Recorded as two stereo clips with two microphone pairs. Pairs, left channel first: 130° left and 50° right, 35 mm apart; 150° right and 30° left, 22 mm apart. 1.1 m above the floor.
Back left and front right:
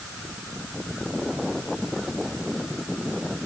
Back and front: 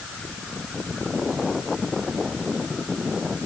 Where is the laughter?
No laughter in this recording.